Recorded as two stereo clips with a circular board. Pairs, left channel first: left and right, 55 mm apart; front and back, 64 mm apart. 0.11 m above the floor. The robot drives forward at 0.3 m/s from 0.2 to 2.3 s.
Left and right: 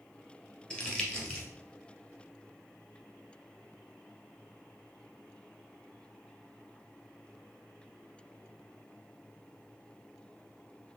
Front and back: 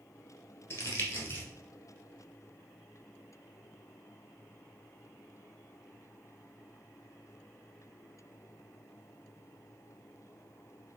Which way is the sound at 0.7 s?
30° left.